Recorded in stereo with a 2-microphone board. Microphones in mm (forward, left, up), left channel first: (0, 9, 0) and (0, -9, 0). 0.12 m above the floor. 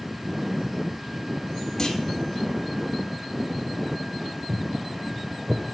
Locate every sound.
1.8 s a clunk: 20° left (ahead or behind), 2.0 m
4.5 s footsteps: 60° right (ahead or behind), 1.3 m; by 5.6 s 25° right (ahead or behind), 1.9 m